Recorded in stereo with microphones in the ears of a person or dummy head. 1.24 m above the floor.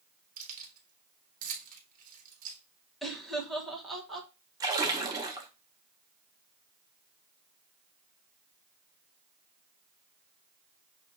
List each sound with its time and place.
0.4 s keys jangling: 45° right (ahead or behind), 1.4 m
3.0 s laughter: centre (ahead or behind), 1.3 m
4.6 s a splash: 10° right (ahead or behind), 0.6 m